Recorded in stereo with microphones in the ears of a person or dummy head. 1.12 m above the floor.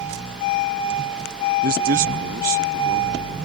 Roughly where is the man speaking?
Right.